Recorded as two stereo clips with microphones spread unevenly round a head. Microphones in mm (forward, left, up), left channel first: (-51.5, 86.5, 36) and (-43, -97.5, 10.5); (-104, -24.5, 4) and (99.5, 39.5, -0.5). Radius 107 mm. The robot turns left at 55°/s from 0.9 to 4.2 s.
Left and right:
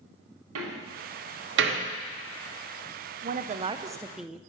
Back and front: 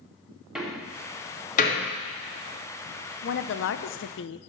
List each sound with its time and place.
0.6 s a door slam: 70° right, 1.3 m; by 1.9 s 125° right, 1.3 m
3.2 s a woman speaking: 125° right, 0.5 m; by 4.4 s straight behind, 0.5 m